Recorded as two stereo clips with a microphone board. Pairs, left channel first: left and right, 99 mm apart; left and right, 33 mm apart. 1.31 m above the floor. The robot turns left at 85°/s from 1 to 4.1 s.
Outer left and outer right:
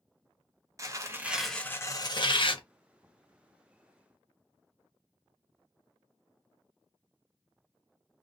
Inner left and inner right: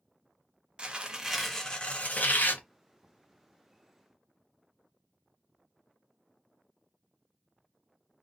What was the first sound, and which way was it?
Tearing paper, 145° right.